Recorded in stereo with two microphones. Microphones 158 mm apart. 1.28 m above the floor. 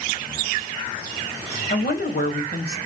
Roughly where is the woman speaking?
Left.